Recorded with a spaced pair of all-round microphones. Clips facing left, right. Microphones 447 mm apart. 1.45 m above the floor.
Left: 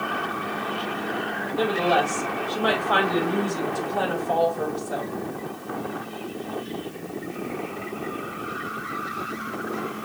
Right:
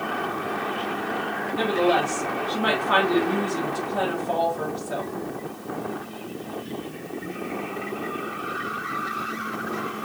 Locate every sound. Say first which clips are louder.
1.6 s a woman speaking: right 1 dB; 75° right (ahead or behind), 2 m